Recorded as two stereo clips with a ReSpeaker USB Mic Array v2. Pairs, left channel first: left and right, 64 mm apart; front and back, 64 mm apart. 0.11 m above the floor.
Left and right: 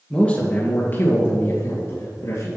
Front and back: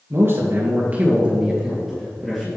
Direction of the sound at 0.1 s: 160° left.